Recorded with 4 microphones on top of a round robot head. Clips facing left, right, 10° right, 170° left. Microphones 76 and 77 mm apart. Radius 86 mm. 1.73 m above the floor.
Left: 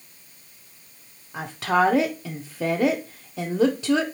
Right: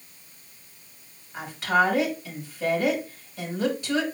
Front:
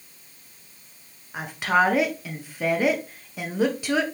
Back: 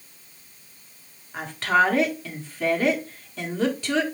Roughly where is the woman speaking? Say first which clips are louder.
Left 1 dB, back 1 dB; left.